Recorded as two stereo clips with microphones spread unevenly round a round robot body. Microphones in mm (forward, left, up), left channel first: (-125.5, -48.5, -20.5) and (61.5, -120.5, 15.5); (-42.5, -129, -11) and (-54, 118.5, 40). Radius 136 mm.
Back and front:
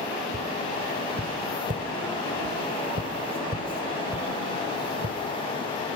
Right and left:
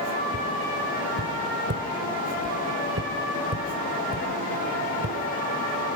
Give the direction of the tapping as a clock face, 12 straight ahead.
11 o'clock.